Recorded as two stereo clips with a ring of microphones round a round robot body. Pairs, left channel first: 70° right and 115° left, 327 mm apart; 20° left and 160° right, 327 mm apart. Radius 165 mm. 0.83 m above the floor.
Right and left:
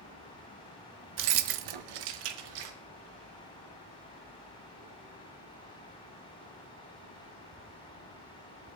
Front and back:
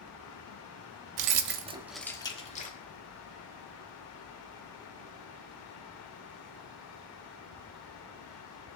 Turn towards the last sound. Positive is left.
turn(degrees=90)